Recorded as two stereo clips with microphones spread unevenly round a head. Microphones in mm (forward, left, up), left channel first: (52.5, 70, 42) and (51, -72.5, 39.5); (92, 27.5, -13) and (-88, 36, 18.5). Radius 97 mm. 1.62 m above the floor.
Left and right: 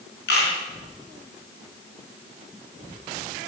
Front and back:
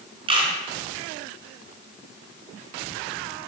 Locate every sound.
0.3 s a camera shutter: 120° left, 5.5 m